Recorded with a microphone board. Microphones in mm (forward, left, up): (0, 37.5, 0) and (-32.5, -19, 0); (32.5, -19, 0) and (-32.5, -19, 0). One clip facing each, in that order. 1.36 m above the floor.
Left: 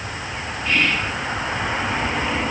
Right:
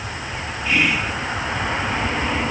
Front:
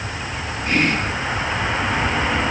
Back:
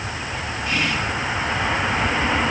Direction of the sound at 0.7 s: 40° right.